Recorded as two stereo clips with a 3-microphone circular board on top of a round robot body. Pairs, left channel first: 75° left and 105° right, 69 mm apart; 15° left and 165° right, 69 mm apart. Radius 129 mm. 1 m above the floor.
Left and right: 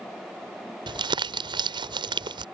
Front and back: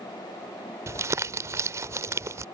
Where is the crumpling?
110° right.